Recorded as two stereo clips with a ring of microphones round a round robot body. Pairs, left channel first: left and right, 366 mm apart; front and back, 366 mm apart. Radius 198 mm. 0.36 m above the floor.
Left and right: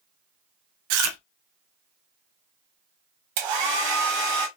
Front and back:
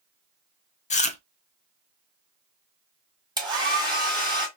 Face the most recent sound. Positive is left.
turn(degrees=-100)